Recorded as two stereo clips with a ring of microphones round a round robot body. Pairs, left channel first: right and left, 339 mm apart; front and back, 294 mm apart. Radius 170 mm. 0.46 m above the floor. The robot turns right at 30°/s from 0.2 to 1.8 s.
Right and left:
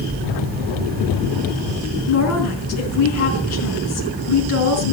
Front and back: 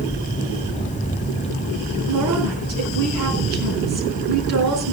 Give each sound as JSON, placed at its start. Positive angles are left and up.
{"t": 2.1, "sound": "a woman speaking", "azimuth_deg": -135, "distance_m": 5.0}